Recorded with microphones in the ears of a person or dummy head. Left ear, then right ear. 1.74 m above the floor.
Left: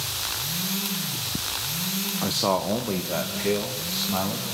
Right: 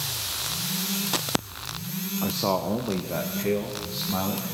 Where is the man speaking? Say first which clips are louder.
Left 2 dB; 20° left (ahead or behind), 0.9 m.